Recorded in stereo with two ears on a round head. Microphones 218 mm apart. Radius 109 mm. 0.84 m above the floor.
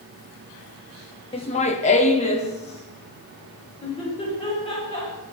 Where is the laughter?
25° left (ahead or behind), 1.0 m.